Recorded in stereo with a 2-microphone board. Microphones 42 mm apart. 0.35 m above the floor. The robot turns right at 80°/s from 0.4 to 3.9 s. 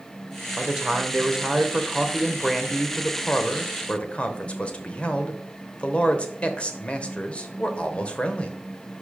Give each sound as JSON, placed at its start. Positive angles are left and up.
{"t": 0.6, "sound": "a man speaking", "side_deg": -10, "distance_m": 1.0}